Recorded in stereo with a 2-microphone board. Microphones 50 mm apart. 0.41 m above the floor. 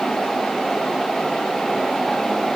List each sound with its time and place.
Only background noise.